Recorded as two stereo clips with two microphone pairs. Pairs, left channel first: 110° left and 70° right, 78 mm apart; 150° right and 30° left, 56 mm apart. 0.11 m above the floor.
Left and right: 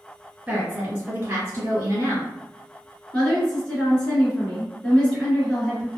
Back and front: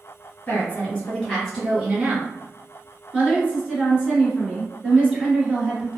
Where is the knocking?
I don't hear knocking.